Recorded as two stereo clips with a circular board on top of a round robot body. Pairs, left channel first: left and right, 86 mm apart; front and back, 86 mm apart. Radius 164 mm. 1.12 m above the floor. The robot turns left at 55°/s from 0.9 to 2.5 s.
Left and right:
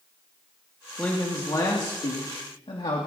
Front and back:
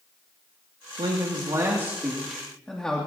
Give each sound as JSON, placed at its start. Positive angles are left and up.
{"t": 1.0, "sound": "a man speaking", "azimuth_deg": 165, "distance_m": 2.5}